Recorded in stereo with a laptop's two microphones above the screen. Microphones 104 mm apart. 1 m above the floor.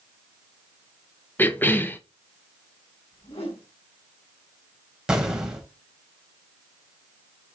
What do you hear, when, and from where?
1.4 s a cough: 20° left (ahead or behind), 0.9 m
3.1 s a whoosh: 70° left (ahead or behind), 3.5 m
5.1 s an explosion: 5° right (ahead or behind), 2.5 m